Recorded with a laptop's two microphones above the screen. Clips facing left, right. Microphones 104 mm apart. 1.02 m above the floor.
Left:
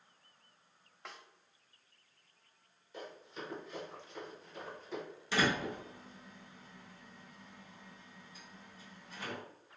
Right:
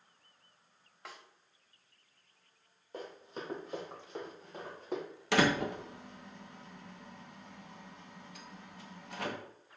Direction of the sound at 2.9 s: 45° right (ahead or behind).